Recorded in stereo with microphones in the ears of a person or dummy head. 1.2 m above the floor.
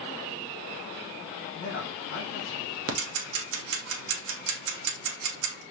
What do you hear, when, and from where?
1.6 s a man speaking: 70° left (ahead or behind), 2 m
2.9 s ticking: 70° right (ahead or behind), 0.7 m